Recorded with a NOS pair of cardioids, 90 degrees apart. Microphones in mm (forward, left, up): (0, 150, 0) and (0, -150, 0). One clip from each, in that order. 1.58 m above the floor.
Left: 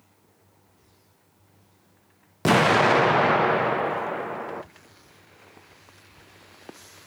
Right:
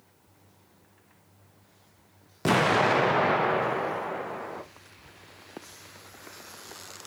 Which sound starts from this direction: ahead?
An explosion, at 2.5 s.